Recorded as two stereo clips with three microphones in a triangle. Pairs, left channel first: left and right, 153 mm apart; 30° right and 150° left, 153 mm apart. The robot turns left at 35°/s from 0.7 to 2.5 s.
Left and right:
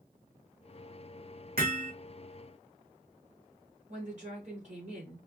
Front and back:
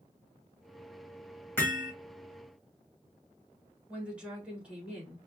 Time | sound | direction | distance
1.6 | hammering | 105° right | 2 m
3.9 | a woman speaking | 125° right | 2.5 m